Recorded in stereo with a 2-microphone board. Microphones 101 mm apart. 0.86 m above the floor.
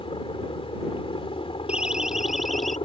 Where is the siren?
10° right (ahead or behind); by 2.8 s centre (ahead or behind).